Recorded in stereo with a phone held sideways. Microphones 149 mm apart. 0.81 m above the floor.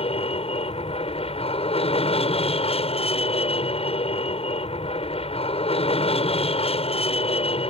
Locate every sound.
0.0 s an aircraft: 40° left (ahead or behind)